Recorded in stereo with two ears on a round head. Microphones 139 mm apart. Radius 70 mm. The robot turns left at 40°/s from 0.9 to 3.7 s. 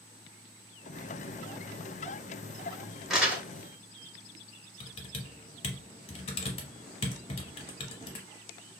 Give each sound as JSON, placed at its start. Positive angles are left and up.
{"t": 3.1, "sound": "crumpling", "side_deg": 0, "distance_m": 0.7}
{"t": 4.8, "sound": "typing on a keyboard", "side_deg": 40, "distance_m": 0.8}